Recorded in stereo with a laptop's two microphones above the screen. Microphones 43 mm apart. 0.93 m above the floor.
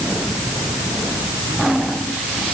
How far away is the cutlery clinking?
No cutlery clinking in this recording.